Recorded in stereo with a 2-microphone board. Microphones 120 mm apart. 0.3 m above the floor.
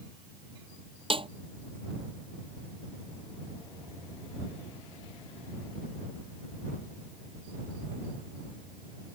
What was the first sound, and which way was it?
A snare drum, 50° right (ahead or behind).